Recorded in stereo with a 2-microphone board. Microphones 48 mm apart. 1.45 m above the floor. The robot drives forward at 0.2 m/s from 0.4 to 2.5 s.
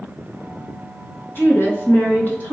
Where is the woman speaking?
45° left (ahead or behind), 0.9 m; by 2.5 s 40° left (ahead or behind), 1.1 m.